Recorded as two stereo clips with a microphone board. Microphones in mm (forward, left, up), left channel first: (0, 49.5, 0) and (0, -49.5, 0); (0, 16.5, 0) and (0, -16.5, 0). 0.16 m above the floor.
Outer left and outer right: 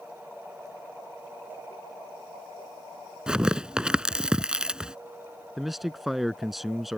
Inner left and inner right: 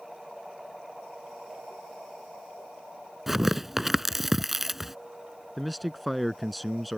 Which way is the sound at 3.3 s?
10° right (ahead or behind).